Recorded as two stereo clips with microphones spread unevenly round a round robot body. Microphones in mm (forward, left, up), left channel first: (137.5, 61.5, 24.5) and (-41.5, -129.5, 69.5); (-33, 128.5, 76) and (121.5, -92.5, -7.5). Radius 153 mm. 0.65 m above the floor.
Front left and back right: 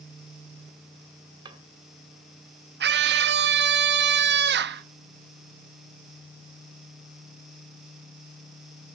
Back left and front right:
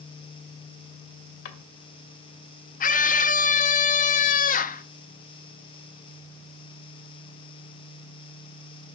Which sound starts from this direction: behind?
A scream, at 2.8 s.